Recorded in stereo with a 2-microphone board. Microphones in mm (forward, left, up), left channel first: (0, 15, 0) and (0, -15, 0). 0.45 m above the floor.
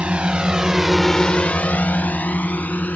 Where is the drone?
45° right (ahead or behind); by 3.0 s 70° left (ahead or behind).